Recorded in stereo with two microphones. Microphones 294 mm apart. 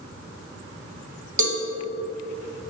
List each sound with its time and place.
1.4 s a cowbell: 75° right (ahead or behind), 0.8 m